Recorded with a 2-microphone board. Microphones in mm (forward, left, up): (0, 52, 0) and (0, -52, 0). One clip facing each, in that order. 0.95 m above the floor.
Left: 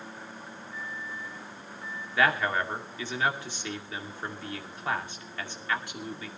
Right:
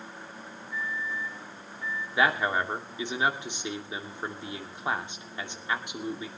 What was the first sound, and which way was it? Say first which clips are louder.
A microwave: right 7 dB; 50° left (ahead or behind).